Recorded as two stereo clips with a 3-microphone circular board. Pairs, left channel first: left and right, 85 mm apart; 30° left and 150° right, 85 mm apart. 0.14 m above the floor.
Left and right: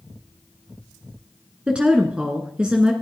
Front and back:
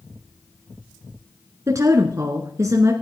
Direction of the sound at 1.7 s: 160° right.